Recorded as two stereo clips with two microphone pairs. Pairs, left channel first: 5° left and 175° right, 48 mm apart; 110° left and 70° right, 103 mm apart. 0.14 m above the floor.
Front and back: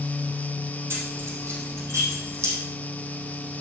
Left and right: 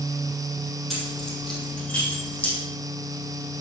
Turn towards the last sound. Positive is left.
turn(degrees=-175)